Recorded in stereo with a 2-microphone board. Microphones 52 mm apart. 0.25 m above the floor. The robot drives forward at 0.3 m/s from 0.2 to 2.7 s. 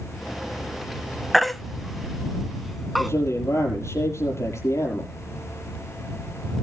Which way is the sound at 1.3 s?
Centre (ahead or behind).